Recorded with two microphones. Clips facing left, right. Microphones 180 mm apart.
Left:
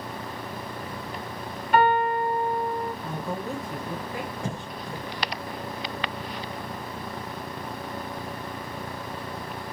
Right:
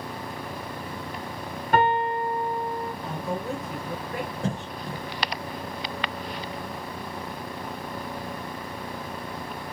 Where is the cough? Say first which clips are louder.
Right 3 dB; 30° right (ahead or behind), 1.1 m.